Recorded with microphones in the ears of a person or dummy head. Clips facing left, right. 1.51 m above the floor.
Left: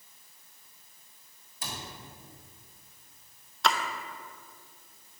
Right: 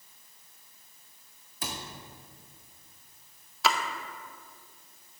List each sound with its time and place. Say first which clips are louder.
1.6 s a cupboard door: right 3 dB; 55° right (ahead or behind), 1.4 m
3.6 s a splash: even; 5° right (ahead or behind), 0.5 m